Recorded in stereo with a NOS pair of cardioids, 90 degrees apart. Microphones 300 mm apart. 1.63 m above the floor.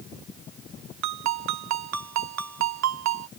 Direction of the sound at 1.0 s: 65° right.